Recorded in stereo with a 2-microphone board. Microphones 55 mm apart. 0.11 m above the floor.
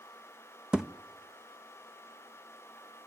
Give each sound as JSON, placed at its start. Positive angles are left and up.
{"t": 0.7, "sound": "a thud", "side_deg": -15, "distance_m": 1.1}